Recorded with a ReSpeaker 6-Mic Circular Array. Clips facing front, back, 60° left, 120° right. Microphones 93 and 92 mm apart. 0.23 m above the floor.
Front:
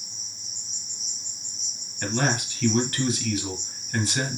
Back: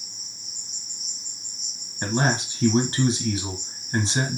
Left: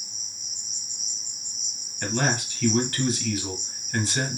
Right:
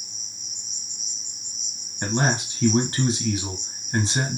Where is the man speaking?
155° right, 1.1 m.